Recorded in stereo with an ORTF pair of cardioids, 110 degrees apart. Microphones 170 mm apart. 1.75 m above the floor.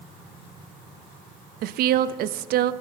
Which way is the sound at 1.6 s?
65° right.